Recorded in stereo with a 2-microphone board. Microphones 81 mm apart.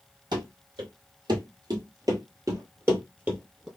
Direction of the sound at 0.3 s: 65° right (ahead or behind).